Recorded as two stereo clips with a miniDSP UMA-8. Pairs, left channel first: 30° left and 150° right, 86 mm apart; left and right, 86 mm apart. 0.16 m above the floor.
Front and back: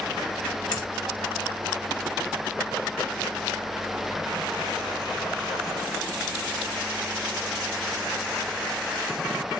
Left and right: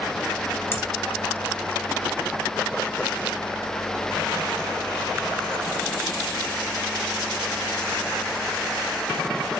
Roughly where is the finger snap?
Ahead left.